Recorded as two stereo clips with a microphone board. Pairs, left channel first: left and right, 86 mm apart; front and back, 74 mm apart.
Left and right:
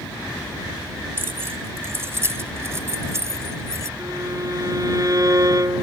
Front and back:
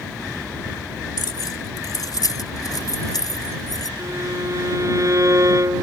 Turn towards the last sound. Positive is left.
turn(degrees=-135)